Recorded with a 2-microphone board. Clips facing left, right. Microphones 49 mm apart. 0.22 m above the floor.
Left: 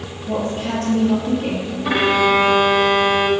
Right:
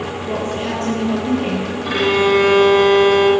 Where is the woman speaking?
55° right (ahead or behind), 3.5 m.